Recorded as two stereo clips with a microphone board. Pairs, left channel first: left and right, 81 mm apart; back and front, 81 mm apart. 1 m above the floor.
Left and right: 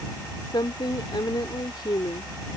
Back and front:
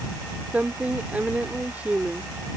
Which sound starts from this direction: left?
A woman speaking, at 0.5 s.